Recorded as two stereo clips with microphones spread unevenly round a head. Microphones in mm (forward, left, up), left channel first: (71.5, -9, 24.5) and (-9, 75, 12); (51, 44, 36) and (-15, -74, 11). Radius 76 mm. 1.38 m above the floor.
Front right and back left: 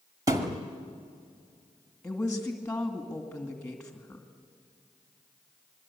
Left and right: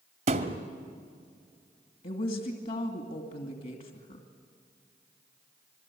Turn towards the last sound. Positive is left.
turn(degrees=35)